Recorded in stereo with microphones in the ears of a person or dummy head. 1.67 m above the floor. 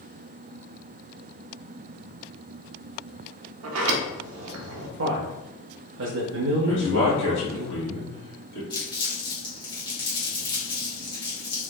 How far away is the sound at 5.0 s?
About 0.5 m.